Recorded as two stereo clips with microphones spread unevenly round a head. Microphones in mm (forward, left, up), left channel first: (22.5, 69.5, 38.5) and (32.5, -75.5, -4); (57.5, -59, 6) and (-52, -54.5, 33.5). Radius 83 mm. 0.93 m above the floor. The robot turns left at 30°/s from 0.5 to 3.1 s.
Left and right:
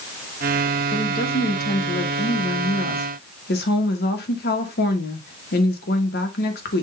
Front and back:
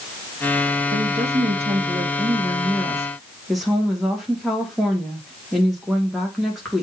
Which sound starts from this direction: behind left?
A woman speaking, at 0.9 s.